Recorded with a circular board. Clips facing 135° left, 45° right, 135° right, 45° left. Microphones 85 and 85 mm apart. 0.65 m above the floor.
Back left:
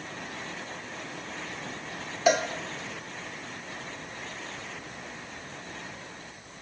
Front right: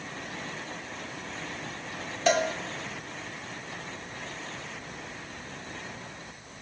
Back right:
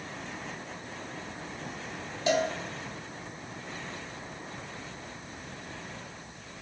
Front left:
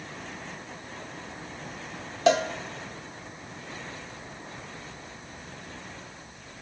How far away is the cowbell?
About 0.8 m.